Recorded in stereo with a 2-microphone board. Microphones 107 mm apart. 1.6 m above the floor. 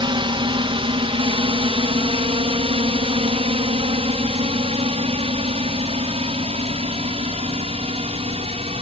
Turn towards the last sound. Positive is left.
turn(degrees=-75)  # may be behind; listen again after turning